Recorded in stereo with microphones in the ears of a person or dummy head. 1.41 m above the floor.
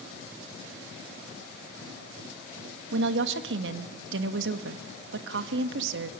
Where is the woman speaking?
70° right (ahead or behind), 1.6 m.